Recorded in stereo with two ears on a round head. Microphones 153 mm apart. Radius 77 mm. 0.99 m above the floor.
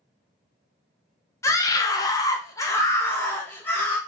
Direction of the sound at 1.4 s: 20° left (ahead or behind).